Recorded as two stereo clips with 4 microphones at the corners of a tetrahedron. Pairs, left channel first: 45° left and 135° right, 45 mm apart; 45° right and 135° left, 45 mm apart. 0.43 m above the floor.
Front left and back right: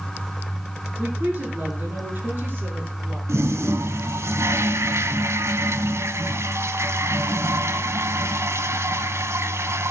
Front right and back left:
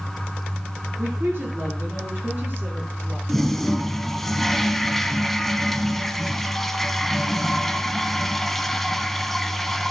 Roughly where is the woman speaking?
Behind.